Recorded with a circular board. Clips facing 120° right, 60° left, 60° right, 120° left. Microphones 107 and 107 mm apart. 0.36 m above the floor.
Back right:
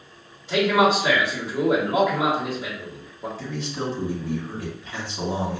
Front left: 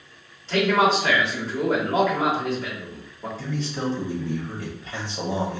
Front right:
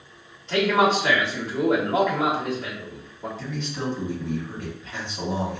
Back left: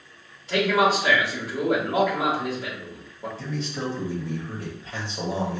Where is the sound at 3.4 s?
100° left, 1.9 m.